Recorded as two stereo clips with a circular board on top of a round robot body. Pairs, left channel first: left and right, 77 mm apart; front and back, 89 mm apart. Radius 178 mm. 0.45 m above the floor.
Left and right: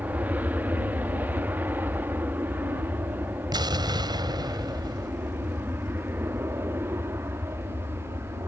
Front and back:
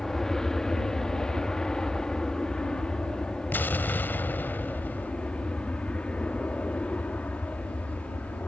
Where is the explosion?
70° right.